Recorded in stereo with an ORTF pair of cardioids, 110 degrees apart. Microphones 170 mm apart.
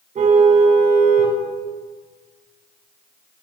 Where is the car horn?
45° right, 9 m.